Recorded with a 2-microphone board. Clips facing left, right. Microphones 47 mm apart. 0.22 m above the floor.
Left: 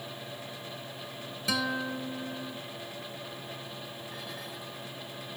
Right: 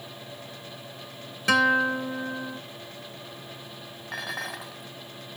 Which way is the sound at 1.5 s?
60° right (ahead or behind).